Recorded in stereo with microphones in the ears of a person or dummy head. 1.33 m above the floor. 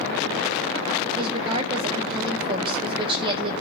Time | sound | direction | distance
1.2 | a woman speaking | 30° right (ahead or behind) | 1.1 m